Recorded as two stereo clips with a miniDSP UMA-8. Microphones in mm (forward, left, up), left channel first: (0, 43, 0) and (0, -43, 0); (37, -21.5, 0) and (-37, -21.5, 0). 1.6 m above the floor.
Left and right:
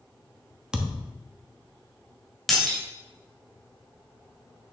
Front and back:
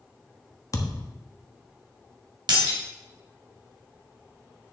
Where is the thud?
10° right, 1.2 m.